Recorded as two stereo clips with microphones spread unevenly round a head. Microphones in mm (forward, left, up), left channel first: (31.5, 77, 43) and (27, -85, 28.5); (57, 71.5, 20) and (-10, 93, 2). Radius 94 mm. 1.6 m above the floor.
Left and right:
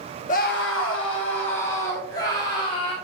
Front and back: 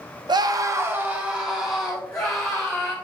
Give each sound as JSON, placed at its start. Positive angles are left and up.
{"t": 0.3, "sound": "a scream", "azimuth_deg": 140, "distance_m": 0.8}